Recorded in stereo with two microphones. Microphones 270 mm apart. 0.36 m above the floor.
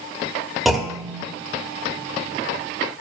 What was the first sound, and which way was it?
A clunk, centre (ahead or behind).